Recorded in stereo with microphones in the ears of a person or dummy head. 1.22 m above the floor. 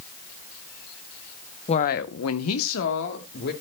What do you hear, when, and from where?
1.7 s a woman speaking: 30° left (ahead or behind), 0.9 m; by 3.5 s 55° left (ahead or behind), 2 m